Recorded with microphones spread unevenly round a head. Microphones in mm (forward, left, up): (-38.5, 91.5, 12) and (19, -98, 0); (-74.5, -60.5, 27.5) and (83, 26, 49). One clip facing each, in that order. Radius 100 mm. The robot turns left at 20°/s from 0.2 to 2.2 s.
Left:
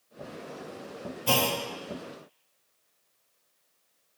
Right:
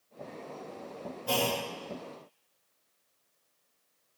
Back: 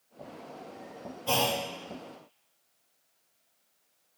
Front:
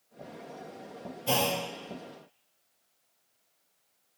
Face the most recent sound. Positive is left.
turn(degrees=85)